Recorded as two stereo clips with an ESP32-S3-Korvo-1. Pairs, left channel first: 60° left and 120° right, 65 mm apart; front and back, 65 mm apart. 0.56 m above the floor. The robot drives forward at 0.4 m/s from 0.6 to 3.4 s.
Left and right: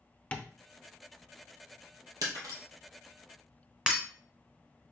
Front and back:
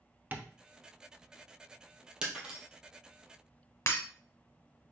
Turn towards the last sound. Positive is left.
turn(degrees=-45)